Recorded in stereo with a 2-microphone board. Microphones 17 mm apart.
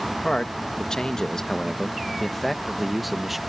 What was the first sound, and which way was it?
A man speaking, 60° left (ahead or behind).